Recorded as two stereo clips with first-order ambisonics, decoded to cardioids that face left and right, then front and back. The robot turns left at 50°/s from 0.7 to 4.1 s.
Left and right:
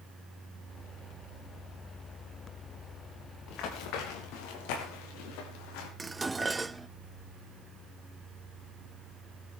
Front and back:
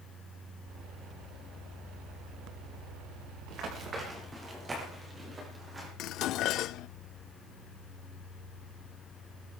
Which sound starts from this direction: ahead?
Dishes clattering, at 6.0 s.